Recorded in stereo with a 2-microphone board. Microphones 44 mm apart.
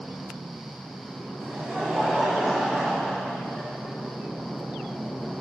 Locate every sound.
1.4 s laughter: 25° right (ahead or behind), 2.5 m; by 3.7 s centre (ahead or behind), 3 m